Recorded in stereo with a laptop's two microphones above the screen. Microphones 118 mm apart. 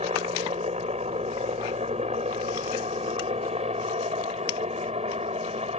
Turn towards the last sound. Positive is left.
turn(degrees=-60)  # may be behind; listen again after turning